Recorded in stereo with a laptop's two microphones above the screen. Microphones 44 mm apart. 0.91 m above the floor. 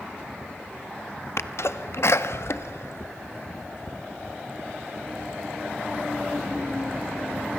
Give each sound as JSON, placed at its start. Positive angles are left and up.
{"t": 1.4, "sound": "a sneeze", "side_deg": 65, "distance_m": 1.1}